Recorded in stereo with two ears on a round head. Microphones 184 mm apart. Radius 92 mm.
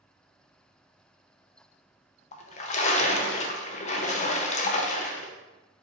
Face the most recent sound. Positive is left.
turn(degrees=35)  # may be behind; listen again after turning